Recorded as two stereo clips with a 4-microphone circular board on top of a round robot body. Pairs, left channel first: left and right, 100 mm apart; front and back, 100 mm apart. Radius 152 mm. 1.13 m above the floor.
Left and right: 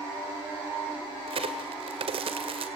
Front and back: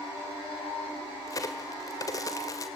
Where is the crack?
60° right, 2.0 m.